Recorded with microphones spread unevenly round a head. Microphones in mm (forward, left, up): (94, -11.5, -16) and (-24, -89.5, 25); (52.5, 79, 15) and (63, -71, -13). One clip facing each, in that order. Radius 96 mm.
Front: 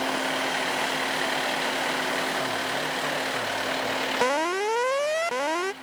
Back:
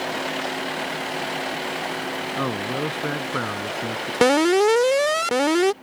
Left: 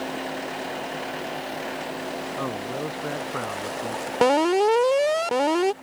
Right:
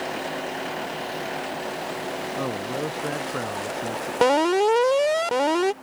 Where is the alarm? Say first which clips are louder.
Back 10 dB, even; straight behind.